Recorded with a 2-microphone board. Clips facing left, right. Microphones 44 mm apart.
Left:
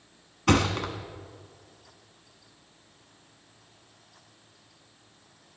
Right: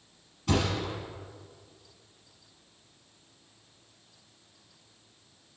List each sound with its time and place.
0.5 s a thud: 70° left (ahead or behind), 1.2 m